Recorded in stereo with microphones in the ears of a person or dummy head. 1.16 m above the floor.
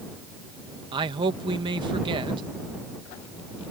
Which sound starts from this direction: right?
A man speaking, at 0.9 s.